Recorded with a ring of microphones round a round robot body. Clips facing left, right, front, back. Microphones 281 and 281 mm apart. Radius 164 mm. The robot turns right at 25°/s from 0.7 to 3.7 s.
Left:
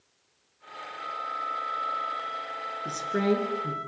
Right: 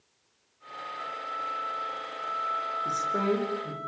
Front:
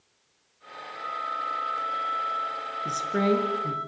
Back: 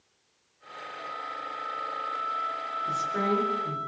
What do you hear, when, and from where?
0.9 s a flute: 5° right, 5 m; by 3.9 s 65° left, 5 m
2.9 s a woman speaking: 20° left, 6 m; by 3.8 s 45° left, 6 m